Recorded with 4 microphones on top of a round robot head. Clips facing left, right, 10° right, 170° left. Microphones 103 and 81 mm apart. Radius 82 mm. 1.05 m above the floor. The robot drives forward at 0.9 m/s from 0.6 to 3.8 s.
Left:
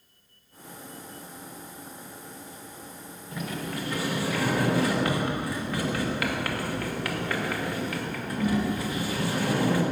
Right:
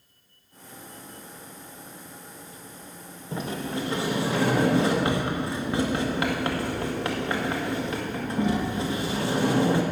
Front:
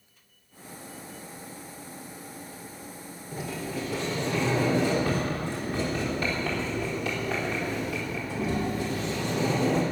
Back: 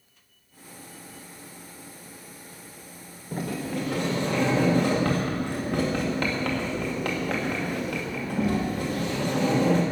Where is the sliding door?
150° right, 1.6 m; by 9.8 s 155° right, 1.9 m.